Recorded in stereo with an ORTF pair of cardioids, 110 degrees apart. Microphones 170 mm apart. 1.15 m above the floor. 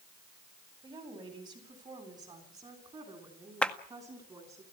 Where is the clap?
5° left, 1.8 m.